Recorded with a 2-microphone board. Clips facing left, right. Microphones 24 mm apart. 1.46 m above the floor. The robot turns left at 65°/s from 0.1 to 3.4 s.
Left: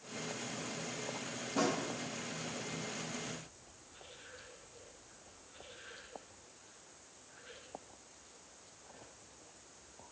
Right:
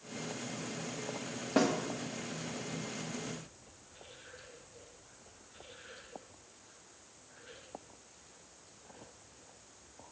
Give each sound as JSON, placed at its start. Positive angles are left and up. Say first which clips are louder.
{"t": 1.6, "sound": "a snare drum", "louder": "right 4 dB", "side_deg": -65, "distance_m": 1.2}